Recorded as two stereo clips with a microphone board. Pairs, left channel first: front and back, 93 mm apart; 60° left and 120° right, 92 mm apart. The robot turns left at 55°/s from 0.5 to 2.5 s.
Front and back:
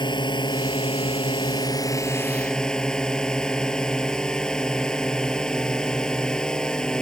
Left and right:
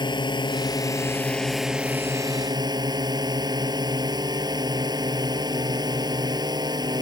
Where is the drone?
30° left; by 7.0 s 80° right.